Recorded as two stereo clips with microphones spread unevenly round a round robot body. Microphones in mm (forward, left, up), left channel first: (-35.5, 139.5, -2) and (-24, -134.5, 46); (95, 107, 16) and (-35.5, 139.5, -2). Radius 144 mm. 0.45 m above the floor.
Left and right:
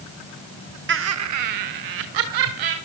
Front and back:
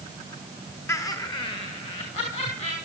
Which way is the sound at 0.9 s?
85° right.